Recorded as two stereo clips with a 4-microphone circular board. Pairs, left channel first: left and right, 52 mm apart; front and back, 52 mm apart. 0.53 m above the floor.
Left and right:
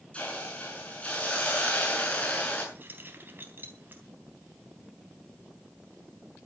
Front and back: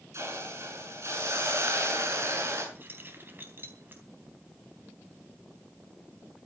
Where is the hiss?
155° left, 7 m.